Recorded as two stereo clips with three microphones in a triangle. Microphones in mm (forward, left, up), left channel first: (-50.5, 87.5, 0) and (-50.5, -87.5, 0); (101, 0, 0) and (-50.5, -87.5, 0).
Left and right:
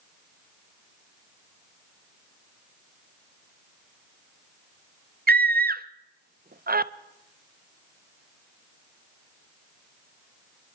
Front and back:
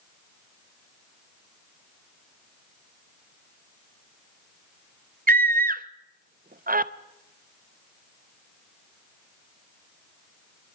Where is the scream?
115° right, 0.6 m.